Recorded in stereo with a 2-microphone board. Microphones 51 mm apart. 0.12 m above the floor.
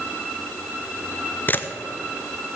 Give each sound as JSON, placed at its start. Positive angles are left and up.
{"t": 1.5, "sound": "a camera shutter", "side_deg": 40, "distance_m": 0.8}